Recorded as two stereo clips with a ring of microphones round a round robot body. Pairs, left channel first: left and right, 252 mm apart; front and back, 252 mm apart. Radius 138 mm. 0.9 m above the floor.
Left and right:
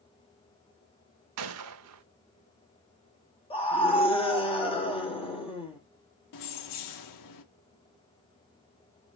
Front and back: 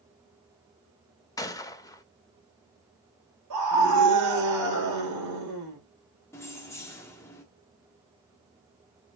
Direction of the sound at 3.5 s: 160° left.